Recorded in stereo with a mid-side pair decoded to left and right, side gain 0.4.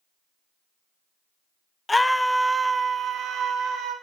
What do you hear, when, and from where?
1.9 s a scream: 20° left, 0.5 m; by 3.9 s 80° right, 1.1 m